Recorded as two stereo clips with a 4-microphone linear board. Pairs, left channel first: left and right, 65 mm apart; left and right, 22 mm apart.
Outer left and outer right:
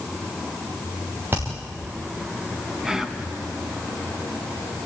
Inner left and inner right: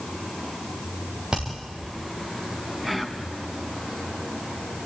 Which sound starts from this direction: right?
Hammering, at 1.3 s.